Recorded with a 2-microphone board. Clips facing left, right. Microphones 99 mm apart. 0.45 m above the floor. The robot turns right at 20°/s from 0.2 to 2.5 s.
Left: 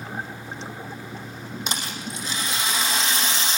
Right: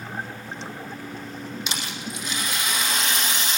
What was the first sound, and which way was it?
A rattle, 45° left (ahead or behind).